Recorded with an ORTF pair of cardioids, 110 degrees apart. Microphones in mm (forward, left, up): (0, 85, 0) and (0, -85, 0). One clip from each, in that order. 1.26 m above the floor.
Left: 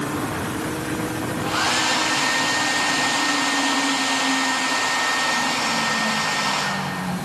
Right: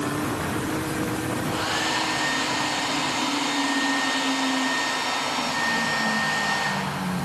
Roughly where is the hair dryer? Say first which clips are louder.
Left 7 dB; left.